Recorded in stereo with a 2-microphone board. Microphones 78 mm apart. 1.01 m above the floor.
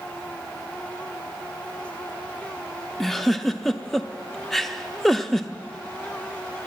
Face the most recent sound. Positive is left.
turn(degrees=5)  # may be behind; listen again after turning